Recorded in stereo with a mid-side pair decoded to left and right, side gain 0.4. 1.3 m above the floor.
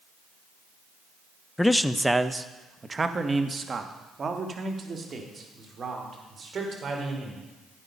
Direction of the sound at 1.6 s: 15° left.